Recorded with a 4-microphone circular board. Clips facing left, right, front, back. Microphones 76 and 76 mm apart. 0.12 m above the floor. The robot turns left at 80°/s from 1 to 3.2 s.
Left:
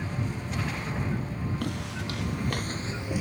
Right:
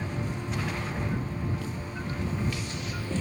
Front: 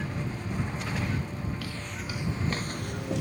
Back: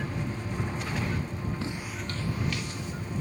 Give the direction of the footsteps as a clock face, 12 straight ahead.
8 o'clock.